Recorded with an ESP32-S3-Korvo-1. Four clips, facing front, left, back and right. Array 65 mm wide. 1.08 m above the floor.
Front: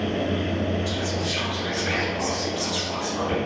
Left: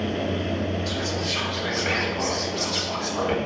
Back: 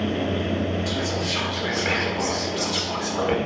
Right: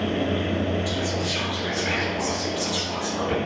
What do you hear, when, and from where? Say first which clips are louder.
0.9 s whispering: right 1 dB, back 1 dB; 170° left, 4 m